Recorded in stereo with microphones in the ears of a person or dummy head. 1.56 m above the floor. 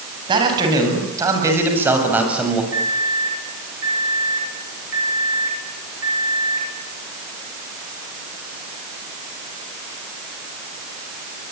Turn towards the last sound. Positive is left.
turn(degrees=-70)  # may be behind; listen again after turning